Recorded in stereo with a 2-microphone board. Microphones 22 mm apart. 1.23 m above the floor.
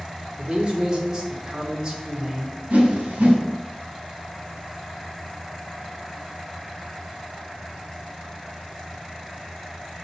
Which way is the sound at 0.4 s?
35° right (ahead or behind).